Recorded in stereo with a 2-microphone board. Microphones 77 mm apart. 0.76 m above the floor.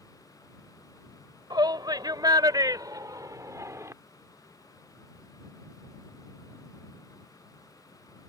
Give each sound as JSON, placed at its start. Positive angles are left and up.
{"t": 1.5, "sound": "a shout", "side_deg": -60}